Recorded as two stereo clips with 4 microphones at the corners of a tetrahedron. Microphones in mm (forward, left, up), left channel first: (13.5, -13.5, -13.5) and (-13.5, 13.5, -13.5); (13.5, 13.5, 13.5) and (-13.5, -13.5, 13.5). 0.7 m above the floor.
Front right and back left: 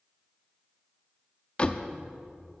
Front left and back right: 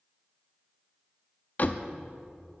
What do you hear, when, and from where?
1.6 s a door slam: 10° left, 0.6 m